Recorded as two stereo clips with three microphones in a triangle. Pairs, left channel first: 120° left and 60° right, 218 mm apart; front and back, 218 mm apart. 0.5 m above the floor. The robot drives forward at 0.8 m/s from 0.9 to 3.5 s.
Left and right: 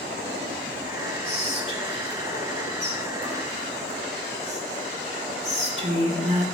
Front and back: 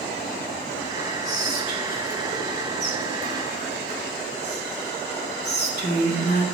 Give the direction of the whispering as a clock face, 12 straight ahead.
12 o'clock.